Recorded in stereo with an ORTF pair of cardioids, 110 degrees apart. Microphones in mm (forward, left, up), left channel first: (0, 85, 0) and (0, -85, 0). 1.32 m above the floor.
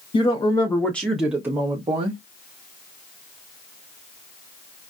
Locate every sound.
0.1 s a woman speaking: 30° left, 1.1 m; by 2.2 s 40° right, 1.0 m